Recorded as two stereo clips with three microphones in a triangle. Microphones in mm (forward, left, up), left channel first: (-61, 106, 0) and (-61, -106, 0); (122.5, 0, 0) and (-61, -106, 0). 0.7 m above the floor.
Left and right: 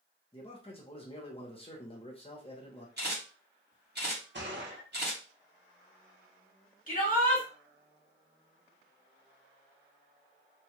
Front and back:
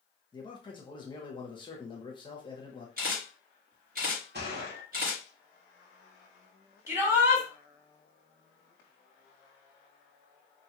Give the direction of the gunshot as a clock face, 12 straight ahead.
4 o'clock.